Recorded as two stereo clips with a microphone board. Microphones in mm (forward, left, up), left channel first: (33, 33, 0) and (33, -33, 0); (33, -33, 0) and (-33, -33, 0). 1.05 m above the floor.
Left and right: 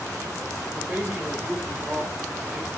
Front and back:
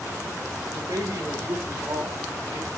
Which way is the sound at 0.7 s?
155° right.